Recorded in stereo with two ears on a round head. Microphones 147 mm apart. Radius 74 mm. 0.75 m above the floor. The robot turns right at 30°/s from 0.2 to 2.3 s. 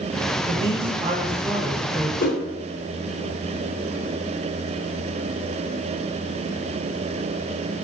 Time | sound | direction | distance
0.5 | a man speaking | 50° right | 0.7 m
2.2 | a whoosh | 50° left (ahead or behind) | 0.6 m